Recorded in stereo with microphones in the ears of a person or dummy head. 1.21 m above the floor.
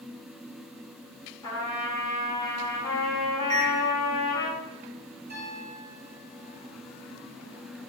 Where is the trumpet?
20° left (ahead or behind), 1.3 m.